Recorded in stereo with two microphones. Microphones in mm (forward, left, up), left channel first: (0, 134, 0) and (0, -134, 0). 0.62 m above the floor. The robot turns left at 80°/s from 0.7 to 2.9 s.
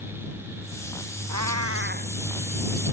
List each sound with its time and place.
1.3 s a cat meowing: 90° right; by 2.1 s 155° right